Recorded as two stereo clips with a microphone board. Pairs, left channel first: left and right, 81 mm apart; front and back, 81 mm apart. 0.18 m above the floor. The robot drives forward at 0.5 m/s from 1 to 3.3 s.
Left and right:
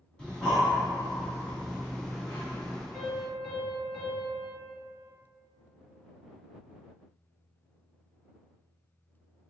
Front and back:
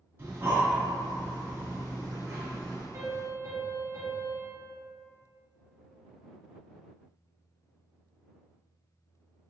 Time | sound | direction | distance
0.2 | breathing | 160° left | 1.7 m
2.9 | a piano | 175° left | 1.8 m